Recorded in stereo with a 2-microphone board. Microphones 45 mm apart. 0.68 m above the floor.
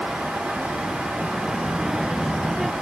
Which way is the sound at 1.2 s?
15° right (ahead or behind).